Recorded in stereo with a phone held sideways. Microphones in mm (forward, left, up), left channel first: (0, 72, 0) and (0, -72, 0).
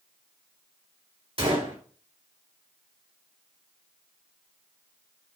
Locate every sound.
1.4 s a gunshot: 40° right (ahead or behind), 3 m